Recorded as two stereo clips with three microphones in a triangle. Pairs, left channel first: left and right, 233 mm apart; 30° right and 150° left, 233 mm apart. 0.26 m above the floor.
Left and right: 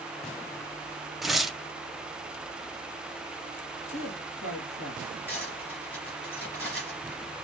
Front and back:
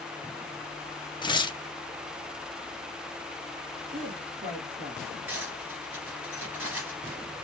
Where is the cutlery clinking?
130° left, 3.5 m.